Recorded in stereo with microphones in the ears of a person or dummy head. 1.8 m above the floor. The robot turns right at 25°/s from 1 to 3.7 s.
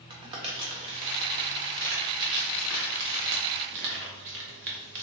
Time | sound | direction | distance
0.1 | crumpling | 25° right (ahead or behind) | 0.8 m